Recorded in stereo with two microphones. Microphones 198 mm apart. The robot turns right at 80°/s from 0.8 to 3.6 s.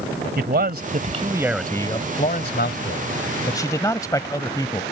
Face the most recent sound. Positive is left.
turn(degrees=160)